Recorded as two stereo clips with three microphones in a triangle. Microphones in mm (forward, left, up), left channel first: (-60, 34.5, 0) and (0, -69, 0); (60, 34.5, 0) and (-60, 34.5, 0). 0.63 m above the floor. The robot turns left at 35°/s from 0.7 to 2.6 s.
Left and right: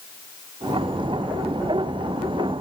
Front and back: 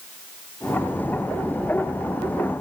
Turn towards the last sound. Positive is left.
No sound to turn to.